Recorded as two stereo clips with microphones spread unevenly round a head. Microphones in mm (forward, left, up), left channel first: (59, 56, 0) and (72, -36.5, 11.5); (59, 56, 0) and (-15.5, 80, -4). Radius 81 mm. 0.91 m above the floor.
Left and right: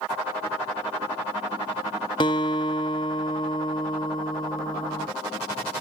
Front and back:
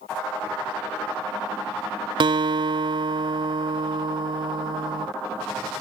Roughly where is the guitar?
Behind left.